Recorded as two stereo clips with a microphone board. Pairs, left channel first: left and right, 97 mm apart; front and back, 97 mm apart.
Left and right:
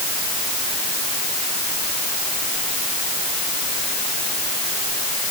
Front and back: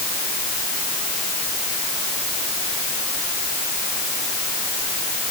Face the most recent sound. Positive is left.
No sound to turn to.